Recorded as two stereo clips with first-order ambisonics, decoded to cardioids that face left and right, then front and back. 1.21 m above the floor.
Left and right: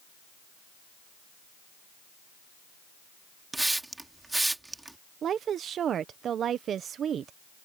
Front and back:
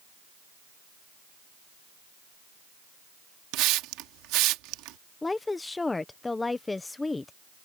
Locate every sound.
3.5 s a hiss: 170° right
5.2 s a woman speaking: 70° right